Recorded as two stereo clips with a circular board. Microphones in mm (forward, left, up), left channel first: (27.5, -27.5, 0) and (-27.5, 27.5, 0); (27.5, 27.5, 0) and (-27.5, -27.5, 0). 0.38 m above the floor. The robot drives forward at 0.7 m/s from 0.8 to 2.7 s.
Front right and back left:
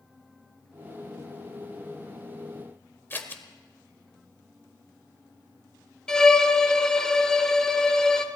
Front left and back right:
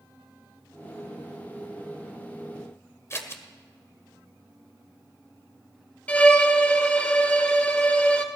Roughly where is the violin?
Ahead.